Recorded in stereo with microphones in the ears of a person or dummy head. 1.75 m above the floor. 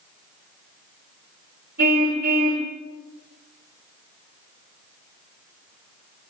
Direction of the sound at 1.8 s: 55° right (ahead or behind).